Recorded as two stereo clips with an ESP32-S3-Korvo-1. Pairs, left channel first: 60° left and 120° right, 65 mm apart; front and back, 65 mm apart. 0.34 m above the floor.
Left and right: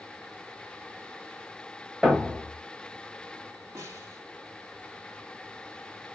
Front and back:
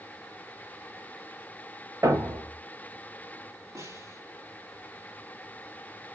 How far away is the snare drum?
About 2 m.